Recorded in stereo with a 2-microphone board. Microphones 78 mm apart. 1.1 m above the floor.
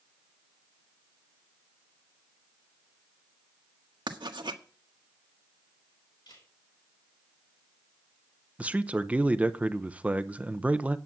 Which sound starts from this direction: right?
Writing, at 4.1 s.